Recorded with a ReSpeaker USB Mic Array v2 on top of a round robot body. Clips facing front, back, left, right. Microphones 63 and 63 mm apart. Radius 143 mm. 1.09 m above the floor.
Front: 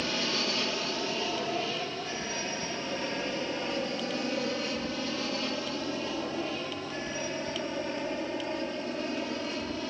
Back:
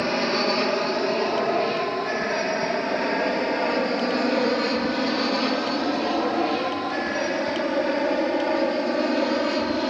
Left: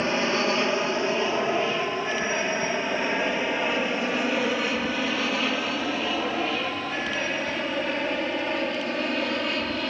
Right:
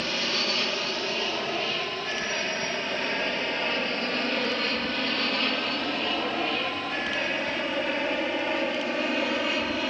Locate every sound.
0.0 s an aircraft: 150° left; by 9.9 s 175° right